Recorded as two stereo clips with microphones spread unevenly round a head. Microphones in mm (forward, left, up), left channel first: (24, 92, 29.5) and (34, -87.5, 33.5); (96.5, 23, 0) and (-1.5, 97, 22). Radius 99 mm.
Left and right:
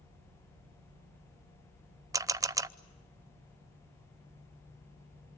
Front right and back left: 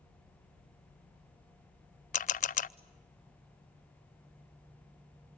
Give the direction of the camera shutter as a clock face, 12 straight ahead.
1 o'clock.